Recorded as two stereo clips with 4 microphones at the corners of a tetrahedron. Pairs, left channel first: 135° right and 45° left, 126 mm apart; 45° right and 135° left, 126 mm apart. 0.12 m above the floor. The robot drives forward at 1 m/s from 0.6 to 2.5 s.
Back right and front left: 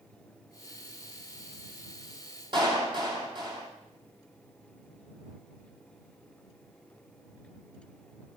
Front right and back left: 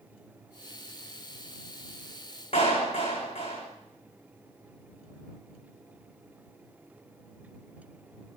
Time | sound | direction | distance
2.5 | a clap | 5° right | 5 m